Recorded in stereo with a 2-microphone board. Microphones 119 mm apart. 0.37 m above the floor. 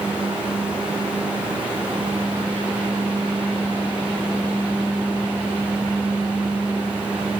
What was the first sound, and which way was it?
Only background noise.